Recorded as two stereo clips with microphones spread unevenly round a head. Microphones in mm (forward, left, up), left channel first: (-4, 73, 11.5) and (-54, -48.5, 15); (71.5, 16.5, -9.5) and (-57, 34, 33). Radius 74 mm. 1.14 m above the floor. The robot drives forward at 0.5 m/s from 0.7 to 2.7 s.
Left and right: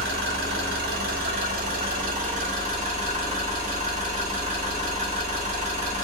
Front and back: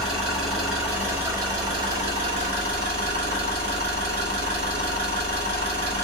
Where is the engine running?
105° right, 1.0 m; by 6.0 s 145° right, 1.6 m.